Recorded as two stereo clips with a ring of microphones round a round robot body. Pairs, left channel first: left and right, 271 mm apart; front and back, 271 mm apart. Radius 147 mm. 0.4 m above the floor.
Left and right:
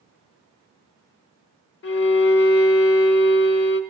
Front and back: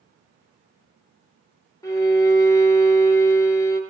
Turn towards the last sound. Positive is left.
turn(degrees=75)